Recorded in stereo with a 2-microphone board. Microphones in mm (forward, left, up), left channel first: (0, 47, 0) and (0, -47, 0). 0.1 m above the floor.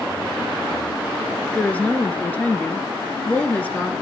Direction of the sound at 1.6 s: 15° left (ahead or behind).